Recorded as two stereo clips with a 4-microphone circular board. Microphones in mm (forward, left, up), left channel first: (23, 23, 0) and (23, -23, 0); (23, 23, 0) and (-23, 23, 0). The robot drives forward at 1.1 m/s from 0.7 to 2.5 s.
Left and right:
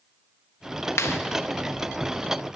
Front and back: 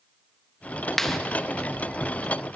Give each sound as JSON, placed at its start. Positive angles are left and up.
{"t": 1.0, "sound": "a clap", "azimuth_deg": 80, "distance_m": 1.2}